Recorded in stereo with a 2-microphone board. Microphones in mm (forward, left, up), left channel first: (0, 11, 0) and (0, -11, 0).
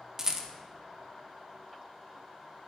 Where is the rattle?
25° right (ahead or behind), 0.5 m.